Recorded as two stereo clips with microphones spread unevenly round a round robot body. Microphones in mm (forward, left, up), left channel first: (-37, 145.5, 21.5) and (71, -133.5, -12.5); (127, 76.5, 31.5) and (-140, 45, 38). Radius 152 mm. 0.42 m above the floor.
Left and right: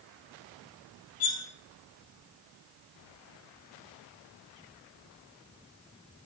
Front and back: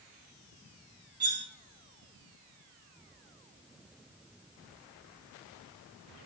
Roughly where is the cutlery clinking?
Behind left.